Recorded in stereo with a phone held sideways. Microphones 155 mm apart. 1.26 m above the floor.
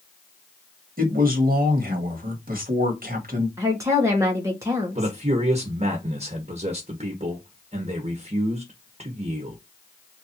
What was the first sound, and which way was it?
A man speaking, 75° right (ahead or behind).